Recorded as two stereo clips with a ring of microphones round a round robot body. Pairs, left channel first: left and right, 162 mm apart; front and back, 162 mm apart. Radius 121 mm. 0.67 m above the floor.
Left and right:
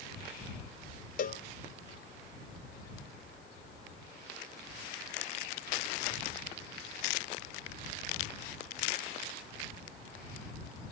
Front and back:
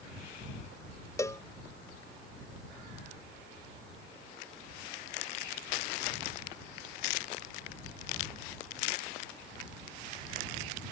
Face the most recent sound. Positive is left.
turn(degrees=70)